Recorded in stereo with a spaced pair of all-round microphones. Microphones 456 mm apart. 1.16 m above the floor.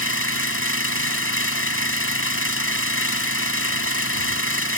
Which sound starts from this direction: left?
An engine running, at 0.0 s.